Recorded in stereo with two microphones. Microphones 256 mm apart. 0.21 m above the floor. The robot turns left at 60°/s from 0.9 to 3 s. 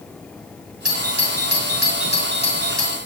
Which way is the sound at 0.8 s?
60° left (ahead or behind).